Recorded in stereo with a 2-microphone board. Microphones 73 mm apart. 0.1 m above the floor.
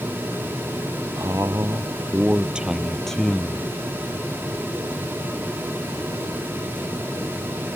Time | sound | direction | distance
1.2 | a man speaking | 50° right (ahead or behind) | ?